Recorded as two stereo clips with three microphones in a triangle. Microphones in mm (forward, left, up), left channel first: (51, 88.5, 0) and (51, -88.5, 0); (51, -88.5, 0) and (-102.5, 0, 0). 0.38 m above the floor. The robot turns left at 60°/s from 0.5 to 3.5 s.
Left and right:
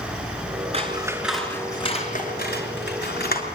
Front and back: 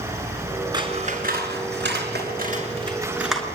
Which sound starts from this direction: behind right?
Scissors, at 0.7 s.